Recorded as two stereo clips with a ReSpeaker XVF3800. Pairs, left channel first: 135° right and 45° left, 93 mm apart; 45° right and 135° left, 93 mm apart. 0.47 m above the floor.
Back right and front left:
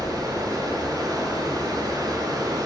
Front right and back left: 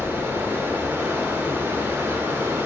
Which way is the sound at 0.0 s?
75° left.